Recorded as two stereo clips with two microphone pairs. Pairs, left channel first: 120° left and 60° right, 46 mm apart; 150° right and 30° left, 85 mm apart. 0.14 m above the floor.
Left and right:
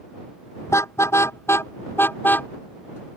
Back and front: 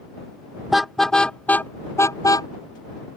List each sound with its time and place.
0.7 s a car horn: 115° left; by 2.5 s 165° left